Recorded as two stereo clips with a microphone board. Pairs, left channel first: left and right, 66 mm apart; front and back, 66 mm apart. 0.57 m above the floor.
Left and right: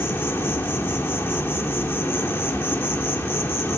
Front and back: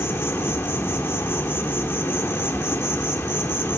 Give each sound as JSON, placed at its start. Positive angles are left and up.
{"t": 0.0, "sound": "an insect", "azimuth_deg": 45, "distance_m": 1.0}